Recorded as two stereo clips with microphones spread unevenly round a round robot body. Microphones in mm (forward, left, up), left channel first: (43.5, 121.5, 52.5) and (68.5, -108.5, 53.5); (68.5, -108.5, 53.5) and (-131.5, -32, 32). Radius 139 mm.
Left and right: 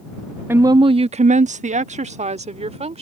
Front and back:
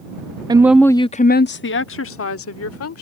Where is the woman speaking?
160° right; by 3.0 s 20° right.